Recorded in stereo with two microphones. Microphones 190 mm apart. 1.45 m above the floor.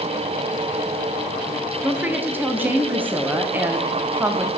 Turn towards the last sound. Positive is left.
turn(degrees=-10)  # may be behind; listen again after turning